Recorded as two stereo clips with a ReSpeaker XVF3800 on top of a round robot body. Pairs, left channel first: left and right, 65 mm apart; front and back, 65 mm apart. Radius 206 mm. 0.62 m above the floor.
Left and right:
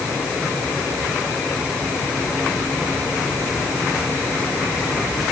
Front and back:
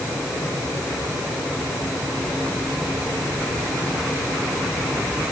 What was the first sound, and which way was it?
Only background noise.